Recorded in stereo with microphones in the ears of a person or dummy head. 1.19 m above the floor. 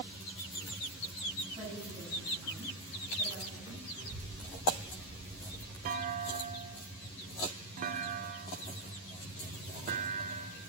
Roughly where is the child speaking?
Right.